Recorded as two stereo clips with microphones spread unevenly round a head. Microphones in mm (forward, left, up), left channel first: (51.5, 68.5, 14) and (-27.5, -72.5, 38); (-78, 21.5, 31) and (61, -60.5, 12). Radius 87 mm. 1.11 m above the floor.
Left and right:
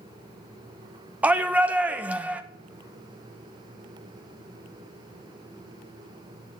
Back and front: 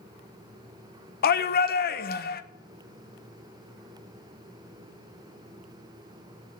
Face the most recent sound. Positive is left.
turn(degrees=155)